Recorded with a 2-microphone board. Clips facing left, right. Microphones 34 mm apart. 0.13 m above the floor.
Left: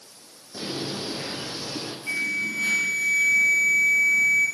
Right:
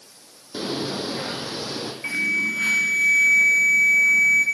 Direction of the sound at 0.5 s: 60° right (ahead or behind).